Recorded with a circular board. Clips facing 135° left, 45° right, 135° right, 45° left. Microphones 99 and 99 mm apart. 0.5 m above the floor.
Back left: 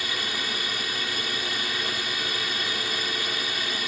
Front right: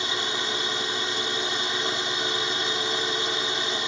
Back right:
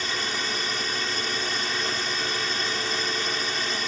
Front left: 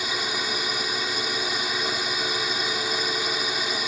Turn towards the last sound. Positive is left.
turn(degrees=-20)